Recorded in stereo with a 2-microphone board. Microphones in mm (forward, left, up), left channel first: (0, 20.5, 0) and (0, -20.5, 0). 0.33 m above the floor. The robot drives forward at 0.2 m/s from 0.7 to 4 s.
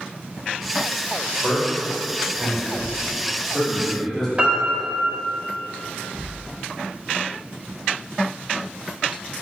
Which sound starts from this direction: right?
A piano, at 4.4 s.